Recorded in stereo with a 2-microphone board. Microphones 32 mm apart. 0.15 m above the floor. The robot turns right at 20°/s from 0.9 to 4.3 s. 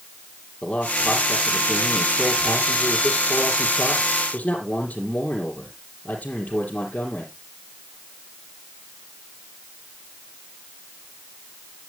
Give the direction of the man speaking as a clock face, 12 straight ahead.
10 o'clock.